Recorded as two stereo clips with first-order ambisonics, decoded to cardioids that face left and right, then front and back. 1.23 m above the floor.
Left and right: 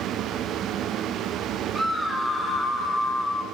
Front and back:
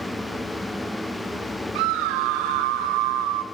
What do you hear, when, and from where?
1.8 s a scream: straight behind, 3 m; by 3.4 s 160° left, 4 m